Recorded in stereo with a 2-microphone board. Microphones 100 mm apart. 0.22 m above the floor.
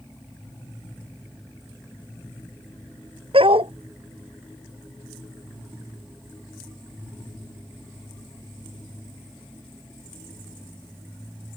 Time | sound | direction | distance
3.3 | a dog barking | 70° right (ahead or behind) | ?